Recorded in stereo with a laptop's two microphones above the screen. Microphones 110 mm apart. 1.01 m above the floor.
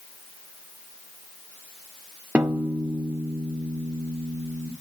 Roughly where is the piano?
Centre.